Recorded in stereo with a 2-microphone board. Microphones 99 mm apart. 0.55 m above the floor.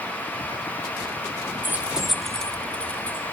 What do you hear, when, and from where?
1.6 s keys jangling: 20° right (ahead or behind), 0.5 m; by 3.2 s 15° left (ahead or behind), 1.5 m